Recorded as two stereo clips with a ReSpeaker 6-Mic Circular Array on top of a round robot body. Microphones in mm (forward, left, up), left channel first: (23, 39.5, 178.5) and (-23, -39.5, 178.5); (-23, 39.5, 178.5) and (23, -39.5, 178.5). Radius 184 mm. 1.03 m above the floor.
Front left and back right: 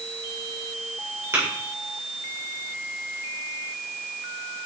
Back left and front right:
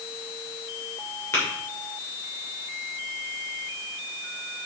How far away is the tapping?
About 3 m.